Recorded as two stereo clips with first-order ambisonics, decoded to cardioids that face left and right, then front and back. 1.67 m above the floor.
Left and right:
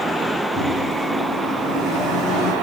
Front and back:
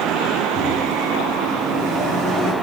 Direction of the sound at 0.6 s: 150° left.